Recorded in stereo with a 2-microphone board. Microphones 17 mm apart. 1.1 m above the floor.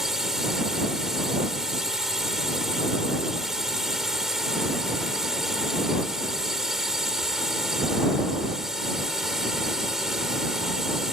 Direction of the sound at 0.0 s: 30° right (ahead or behind).